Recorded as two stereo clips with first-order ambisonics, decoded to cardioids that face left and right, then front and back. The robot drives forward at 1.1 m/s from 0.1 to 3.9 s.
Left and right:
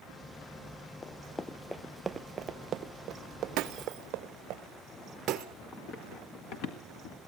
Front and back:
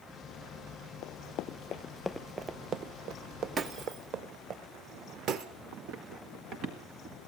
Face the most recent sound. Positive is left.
turn(degrees=120)